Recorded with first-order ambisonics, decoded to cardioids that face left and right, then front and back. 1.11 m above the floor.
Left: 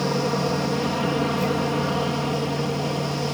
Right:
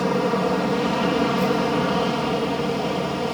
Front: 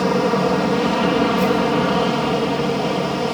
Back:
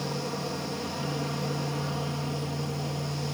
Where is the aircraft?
15° right.